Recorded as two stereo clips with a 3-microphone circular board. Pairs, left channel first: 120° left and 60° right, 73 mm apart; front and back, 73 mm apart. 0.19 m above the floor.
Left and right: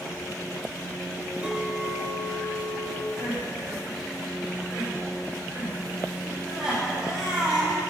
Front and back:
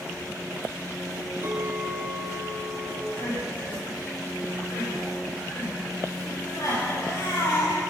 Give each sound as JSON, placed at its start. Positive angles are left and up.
{"t": 1.4, "sound": "a clink", "azimuth_deg": -130, "distance_m": 4.0}
{"t": 3.1, "sound": "crying", "azimuth_deg": 20, "distance_m": 7.5}